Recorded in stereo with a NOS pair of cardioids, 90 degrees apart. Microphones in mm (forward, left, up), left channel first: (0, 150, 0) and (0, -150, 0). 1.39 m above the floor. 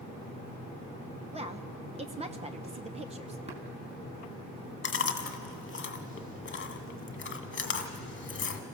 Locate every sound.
1.3 s a woman speaking: 20° right, 1.1 m
3.5 s tapping: 20° right, 4 m
4.8 s chewing: 40° left, 1.6 m